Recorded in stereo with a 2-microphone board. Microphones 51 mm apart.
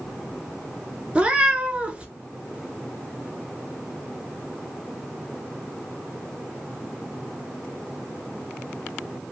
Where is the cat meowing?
25° right (ahead or behind), 0.6 m.